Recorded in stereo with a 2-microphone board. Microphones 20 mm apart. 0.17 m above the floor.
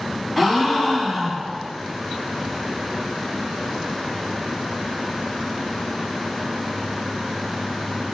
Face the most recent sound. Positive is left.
turn(degrees=5)  # may be behind; listen again after turning